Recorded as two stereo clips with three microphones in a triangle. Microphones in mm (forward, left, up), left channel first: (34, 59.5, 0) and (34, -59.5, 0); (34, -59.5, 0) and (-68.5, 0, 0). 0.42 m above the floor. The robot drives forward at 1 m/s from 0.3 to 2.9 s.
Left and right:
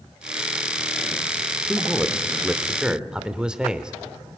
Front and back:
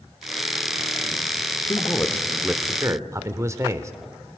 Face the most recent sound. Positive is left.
turn(degrees=-170)